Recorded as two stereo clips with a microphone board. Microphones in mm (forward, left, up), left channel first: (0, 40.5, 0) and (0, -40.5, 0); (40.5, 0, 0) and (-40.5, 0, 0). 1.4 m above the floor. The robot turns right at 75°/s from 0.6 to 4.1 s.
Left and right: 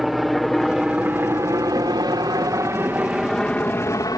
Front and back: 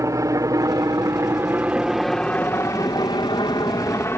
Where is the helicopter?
175° right; by 4.2 s 55° left.